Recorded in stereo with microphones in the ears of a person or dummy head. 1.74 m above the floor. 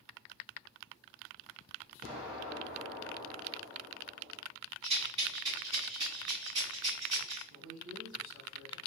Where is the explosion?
55° right (ahead or behind), 1.8 m.